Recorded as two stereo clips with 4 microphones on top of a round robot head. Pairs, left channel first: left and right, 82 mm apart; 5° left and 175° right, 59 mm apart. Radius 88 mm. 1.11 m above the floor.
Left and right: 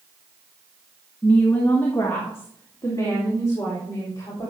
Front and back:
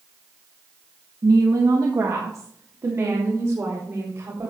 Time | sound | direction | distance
1.2 | a woman speaking | 160° left | 1.3 m